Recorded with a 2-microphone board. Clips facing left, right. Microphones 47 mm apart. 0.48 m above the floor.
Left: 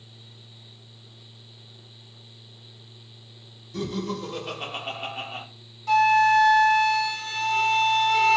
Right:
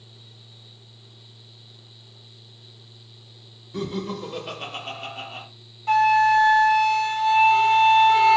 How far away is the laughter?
About 1.0 m.